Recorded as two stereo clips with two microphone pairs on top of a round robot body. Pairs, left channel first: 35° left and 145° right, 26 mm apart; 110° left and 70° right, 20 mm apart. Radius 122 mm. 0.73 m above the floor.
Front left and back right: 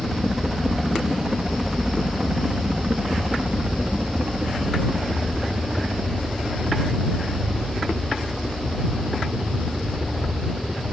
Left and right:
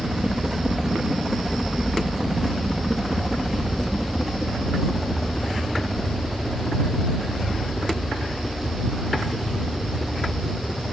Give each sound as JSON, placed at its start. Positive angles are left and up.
{"t": 0.0, "sound": "a helicopter", "azimuth_deg": -85}